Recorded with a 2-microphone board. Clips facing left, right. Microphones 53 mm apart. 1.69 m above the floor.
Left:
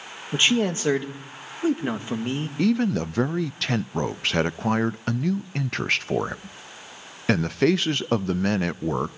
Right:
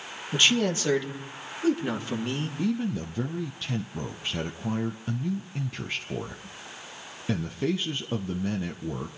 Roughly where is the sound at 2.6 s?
Left.